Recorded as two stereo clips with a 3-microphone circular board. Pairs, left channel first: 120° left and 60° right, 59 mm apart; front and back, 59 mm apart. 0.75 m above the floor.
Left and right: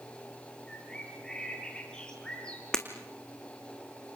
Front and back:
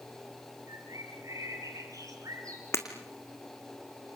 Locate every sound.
0.7 s a bird: 165° right, 6.5 m
2.7 s breaking glass: 40° left, 3 m